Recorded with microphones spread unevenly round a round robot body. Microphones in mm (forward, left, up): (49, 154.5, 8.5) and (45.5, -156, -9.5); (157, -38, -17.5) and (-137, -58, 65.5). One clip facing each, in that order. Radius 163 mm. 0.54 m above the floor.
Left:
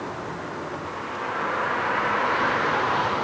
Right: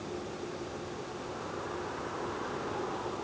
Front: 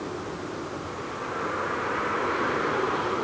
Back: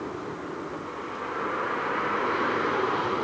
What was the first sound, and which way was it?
A vehicle, 95° left.